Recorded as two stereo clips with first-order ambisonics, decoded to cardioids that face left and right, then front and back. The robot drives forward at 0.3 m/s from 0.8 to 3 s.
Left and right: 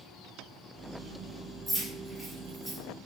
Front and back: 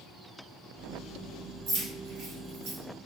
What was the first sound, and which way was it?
Keys jangling, 170° right.